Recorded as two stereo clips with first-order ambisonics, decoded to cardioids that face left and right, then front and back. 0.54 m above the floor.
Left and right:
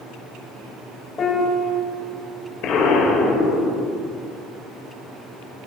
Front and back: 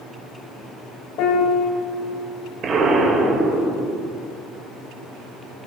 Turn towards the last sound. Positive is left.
turn(degrees=125)